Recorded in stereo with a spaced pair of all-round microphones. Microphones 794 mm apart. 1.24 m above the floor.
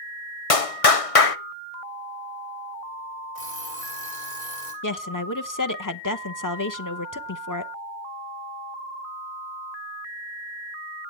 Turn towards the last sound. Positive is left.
turn(degrees=25)  # may be behind; listen again after turning